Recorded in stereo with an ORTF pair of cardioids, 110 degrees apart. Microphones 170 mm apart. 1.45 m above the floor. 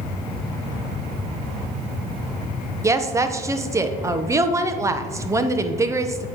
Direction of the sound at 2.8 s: 20° right.